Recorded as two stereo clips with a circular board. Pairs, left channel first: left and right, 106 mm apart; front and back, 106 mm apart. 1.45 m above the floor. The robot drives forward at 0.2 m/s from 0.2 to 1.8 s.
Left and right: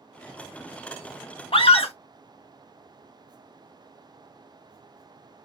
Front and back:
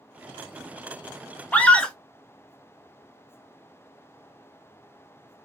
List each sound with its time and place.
1.5 s a scream: 75° left, 0.7 m; by 1.9 s 80° left, 0.6 m